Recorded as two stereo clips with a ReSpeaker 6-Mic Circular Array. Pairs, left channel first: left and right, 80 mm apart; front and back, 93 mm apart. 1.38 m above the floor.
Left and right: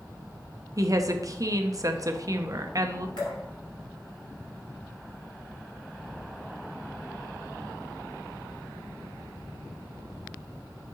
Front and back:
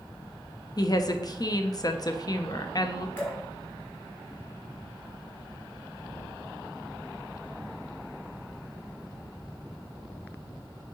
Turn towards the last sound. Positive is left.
turn(degrees=65)